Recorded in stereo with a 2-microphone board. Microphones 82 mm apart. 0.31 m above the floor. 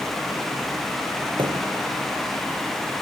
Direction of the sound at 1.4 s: 85° right.